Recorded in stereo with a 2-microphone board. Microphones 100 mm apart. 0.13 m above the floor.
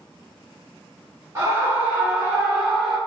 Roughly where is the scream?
Right.